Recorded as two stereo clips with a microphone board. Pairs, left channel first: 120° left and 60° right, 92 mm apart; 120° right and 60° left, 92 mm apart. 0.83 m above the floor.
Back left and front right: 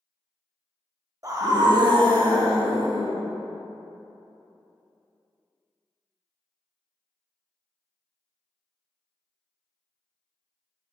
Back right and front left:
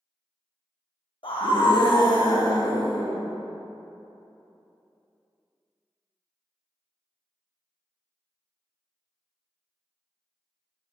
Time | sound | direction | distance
1.2 | a scream | 110° right | 1.2 m